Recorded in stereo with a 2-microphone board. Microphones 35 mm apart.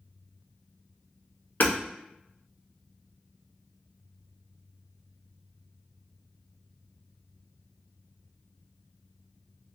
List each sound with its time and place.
1.6 s hammering: 55° left (ahead or behind), 1.1 m